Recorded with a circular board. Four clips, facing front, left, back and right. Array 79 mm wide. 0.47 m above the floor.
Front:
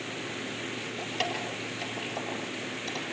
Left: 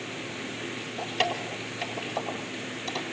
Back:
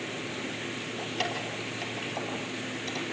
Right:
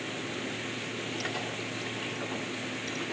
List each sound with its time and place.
1.0 s keys jangling: 80° left, 8 m